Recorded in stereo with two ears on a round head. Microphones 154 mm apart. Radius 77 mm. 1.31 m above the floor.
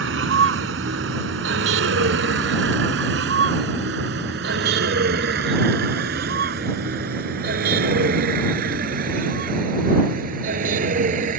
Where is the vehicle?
80° right; by 11.4 s 50° right (ahead or behind).